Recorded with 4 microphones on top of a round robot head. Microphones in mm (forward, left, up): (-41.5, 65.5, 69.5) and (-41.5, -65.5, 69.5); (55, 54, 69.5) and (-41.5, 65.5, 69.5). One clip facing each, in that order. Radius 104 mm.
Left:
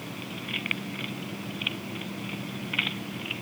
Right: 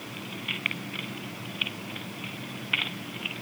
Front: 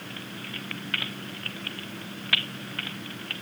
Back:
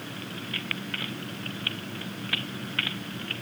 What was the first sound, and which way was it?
Only background noise.